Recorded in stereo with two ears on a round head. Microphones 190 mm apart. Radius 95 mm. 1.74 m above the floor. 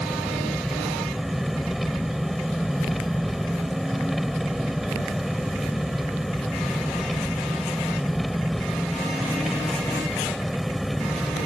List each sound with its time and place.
0.0 s an engine running: centre (ahead or behind)